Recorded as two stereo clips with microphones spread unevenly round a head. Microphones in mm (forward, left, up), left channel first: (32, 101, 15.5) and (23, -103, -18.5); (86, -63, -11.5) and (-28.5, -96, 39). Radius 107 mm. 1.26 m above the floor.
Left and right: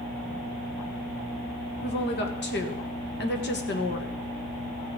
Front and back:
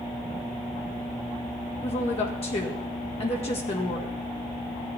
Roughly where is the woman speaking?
Ahead left.